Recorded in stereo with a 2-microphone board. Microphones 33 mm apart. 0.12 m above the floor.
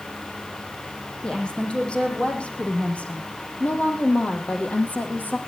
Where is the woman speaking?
25° left (ahead or behind), 6 m; by 5.4 s 60° left (ahead or behind), 5.5 m.